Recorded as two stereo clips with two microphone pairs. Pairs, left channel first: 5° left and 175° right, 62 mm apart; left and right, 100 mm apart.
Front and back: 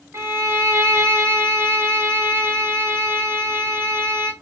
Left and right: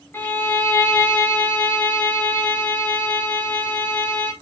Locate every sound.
0.1 s a violin: 150° left, 1.7 m